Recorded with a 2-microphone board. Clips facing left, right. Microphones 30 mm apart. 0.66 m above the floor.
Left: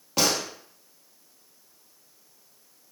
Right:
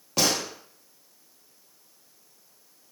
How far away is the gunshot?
About 1.0 m.